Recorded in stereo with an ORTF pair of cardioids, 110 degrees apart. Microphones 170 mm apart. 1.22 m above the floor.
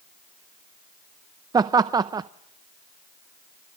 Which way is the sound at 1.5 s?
25° right.